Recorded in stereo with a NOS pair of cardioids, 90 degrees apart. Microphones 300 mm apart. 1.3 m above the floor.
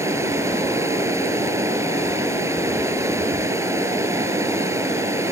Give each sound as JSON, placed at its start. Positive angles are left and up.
{"t": 0.0, "sound": "running water", "azimuth_deg": -10}